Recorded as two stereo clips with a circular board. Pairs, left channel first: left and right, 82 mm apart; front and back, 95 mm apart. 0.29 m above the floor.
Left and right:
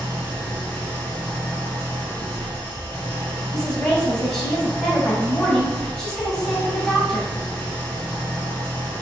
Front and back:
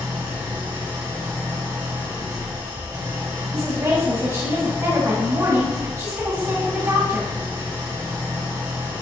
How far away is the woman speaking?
About 1.4 m.